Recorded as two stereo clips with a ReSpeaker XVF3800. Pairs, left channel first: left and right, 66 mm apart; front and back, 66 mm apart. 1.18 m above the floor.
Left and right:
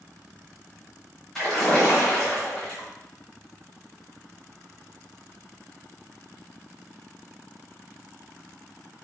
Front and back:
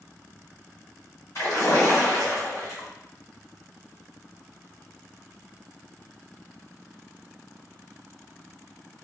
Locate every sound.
1.4 s a splash: 10° left, 1.5 m